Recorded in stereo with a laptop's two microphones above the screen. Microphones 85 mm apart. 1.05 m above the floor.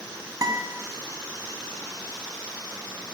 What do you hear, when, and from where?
0.4 s a guitar: 45° right (ahead or behind), 2 m